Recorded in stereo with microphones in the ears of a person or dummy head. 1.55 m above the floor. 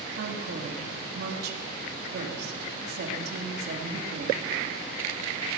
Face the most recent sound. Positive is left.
turn(degrees=-60)  # may be behind; listen again after turning